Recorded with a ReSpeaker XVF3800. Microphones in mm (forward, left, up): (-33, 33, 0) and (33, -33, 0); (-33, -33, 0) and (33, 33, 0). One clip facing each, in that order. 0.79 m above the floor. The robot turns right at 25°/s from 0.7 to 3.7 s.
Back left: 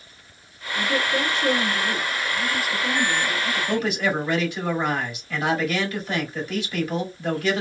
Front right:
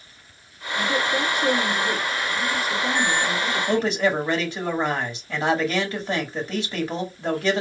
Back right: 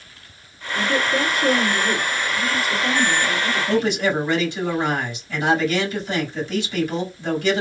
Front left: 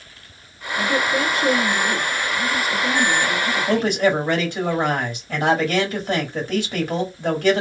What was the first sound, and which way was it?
A woman speaking, 130° right.